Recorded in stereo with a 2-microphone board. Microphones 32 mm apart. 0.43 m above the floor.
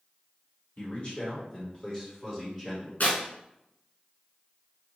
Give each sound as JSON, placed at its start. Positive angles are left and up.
{"t": 0.8, "sound": "a man speaking", "side_deg": 45, "distance_m": 1.9}
{"t": 3.0, "sound": "tearing paper", "side_deg": 60, "distance_m": 1.2}